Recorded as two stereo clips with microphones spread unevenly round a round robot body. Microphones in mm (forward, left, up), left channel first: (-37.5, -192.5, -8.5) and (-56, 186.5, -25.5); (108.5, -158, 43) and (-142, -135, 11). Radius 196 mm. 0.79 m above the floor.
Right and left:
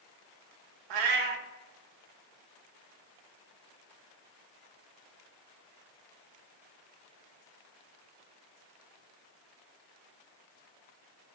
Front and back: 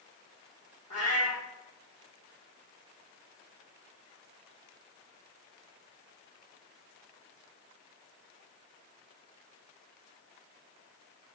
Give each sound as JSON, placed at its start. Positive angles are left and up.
{"t": 0.9, "sound": "a cat meowing", "azimuth_deg": 65, "distance_m": 0.5}